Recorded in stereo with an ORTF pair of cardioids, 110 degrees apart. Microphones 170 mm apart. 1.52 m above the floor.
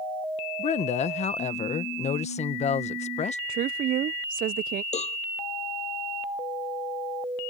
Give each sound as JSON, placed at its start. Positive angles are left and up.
{"t": 0.6, "sound": "a woman speaking", "azimuth_deg": 40}
{"t": 3.5, "sound": "a woman speaking", "azimuth_deg": -55}
{"t": 4.9, "sound": "a cowbell", "azimuth_deg": 40}